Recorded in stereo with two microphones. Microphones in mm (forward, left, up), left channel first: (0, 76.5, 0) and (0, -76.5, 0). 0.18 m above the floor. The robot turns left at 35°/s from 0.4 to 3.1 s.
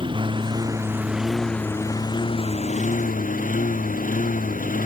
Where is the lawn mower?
145° right; by 4.9 s 120° left.